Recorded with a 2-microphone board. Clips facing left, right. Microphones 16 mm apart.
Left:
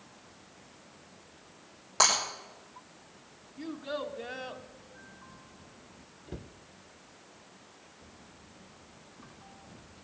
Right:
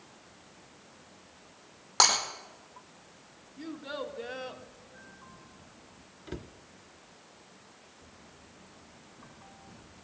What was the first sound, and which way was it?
Breaking glass, 35° right (ahead or behind).